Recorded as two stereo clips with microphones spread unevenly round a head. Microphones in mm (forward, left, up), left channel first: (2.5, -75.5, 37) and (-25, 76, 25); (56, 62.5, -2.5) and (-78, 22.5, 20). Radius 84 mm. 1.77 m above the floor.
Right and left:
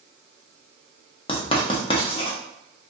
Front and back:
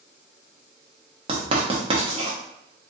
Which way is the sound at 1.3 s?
125° right.